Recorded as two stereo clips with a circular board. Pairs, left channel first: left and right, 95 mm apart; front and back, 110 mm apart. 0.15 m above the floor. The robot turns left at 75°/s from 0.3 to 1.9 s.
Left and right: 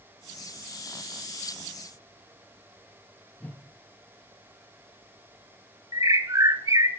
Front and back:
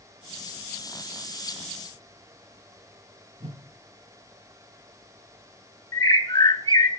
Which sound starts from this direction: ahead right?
A bird, at 5.9 s.